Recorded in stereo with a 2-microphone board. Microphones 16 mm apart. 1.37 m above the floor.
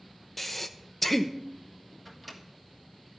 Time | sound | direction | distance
0.4 | breathing | 10° left (ahead or behind) | 0.8 m
2.0 | a microwave | 10° right (ahead or behind) | 1.5 m